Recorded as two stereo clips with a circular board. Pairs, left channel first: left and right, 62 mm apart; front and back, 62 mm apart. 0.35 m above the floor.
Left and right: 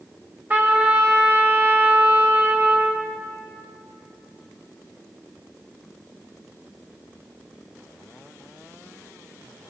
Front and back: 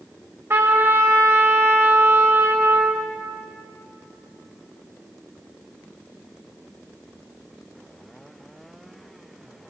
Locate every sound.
0.5 s a trumpet: 140° right, 1.7 m